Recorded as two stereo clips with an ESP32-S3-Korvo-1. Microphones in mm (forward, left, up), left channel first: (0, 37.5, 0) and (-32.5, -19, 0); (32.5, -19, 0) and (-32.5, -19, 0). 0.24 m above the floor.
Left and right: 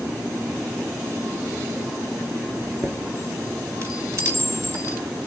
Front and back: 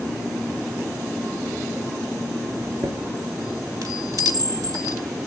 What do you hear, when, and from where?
2.6 s a chime: 165° right, 1.9 m